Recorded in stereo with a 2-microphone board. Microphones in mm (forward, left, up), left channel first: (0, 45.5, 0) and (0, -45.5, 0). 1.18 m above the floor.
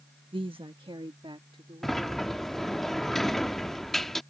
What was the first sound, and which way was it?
A woman speaking, 70° right (ahead or behind).